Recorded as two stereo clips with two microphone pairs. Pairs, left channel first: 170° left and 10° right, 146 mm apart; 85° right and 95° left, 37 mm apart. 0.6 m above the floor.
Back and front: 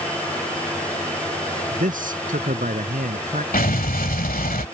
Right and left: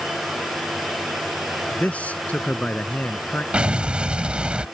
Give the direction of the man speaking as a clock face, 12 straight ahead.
1 o'clock.